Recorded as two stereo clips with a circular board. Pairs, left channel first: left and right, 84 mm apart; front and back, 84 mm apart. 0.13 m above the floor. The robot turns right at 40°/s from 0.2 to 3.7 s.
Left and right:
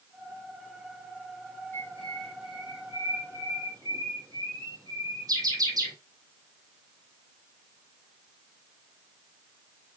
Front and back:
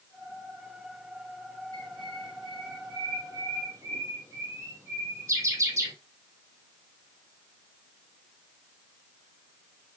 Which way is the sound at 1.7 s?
155° left.